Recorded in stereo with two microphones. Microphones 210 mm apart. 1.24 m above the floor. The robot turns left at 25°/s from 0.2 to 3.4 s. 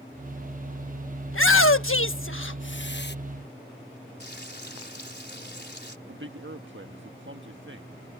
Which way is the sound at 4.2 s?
55° left (ahead or behind).